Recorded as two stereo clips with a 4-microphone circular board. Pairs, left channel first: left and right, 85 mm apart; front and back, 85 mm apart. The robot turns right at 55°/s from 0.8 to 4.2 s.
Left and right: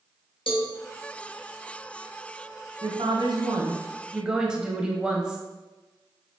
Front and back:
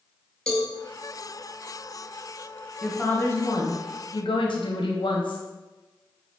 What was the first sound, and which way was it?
A cowbell, 80° left.